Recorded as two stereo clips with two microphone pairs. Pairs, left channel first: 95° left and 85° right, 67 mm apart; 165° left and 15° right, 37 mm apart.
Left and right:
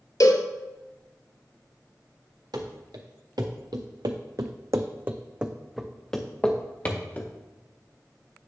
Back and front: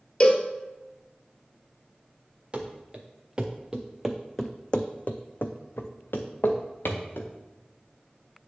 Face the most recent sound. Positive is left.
turn(degrees=155)